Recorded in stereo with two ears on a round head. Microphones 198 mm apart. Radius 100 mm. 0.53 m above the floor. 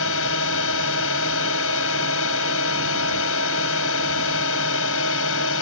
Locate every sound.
0.0 s a drone: 70° left (ahead or behind)